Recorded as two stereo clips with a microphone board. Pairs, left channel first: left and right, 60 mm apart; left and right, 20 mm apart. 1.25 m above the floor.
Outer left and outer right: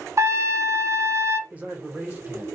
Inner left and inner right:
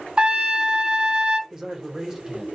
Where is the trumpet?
55° right (ahead or behind), 0.6 m.